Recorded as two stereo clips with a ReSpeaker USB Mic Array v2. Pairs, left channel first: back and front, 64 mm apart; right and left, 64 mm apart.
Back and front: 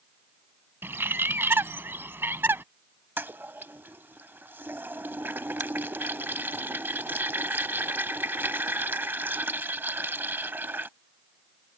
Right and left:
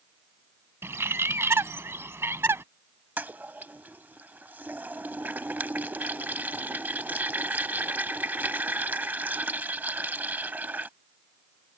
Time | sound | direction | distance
0.8 | a bird | 50° left | ?
3.2 | a toilet flushing | 45° left | ?